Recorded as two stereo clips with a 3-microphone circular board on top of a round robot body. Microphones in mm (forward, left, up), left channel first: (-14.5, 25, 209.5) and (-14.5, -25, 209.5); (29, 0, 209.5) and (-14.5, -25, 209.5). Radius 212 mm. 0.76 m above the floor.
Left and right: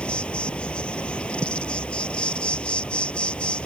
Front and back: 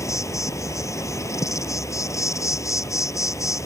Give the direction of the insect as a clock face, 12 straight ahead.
11 o'clock.